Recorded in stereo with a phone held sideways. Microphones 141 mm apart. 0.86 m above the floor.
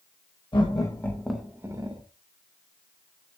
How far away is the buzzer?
No buzzer in this recording.